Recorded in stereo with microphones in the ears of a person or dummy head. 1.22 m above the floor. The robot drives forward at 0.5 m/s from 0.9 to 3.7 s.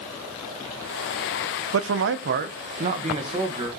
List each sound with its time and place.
1.7 s a man speaking: 65° right (ahead or behind), 0.5 m; by 3.7 s 25° right (ahead or behind), 1.2 m